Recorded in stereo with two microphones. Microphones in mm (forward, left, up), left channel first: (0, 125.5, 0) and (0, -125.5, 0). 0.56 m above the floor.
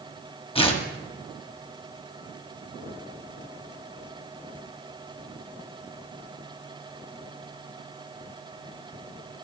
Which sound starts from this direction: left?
Tearing paper, at 0.6 s.